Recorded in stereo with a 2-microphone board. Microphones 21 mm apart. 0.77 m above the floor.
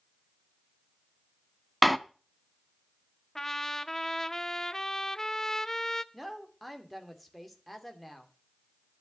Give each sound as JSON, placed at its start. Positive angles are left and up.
{"t": 1.8, "sound": "a door slam", "side_deg": 0, "distance_m": 0.7}
{"t": 3.4, "sound": "a trumpet", "side_deg": 20, "distance_m": 0.6}
{"t": 6.1, "sound": "a woman speaking", "side_deg": 0, "distance_m": 2.5}